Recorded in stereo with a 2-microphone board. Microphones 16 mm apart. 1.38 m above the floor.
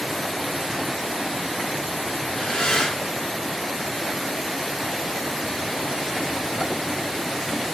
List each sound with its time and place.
2.2 s breathing: 75° left (ahead or behind), 5 m